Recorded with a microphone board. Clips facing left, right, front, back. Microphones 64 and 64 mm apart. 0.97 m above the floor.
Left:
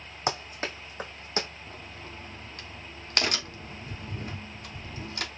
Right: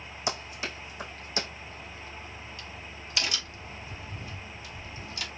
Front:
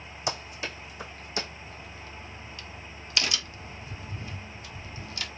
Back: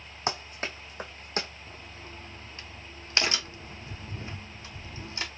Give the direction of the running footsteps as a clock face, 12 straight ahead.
8 o'clock.